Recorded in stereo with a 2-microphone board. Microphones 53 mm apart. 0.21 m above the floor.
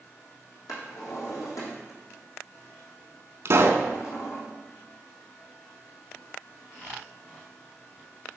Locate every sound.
0.7 s a drawer: 85° left, 3 m
3.5 s a pop: 55° right (ahead or behind), 0.7 m